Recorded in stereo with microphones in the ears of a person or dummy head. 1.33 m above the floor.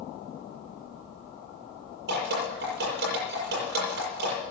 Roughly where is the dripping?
Right.